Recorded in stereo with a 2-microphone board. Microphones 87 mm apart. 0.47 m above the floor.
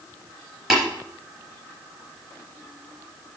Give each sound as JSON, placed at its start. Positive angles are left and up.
{"t": 0.7, "sound": "tapping", "side_deg": -5, "distance_m": 4.5}